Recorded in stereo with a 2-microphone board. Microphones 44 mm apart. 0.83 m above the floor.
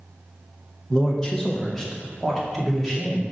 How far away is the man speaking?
About 0.8 m.